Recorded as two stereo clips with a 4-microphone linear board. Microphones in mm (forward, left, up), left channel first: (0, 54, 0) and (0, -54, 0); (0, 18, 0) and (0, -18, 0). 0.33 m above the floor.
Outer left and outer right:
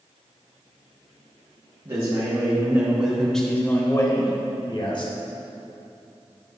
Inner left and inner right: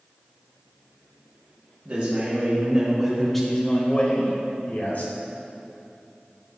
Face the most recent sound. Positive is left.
turn(degrees=55)  # may be behind; listen again after turning